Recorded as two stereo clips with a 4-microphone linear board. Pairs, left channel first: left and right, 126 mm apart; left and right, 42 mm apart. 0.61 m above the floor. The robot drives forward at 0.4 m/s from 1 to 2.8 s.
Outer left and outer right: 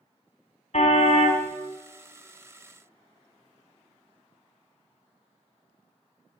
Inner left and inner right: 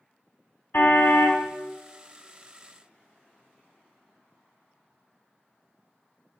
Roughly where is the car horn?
Left.